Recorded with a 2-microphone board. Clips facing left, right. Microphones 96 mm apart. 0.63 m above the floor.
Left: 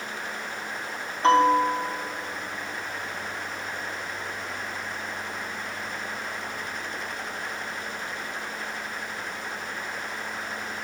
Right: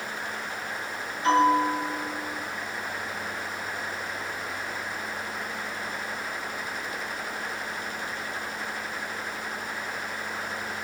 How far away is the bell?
About 1.6 m.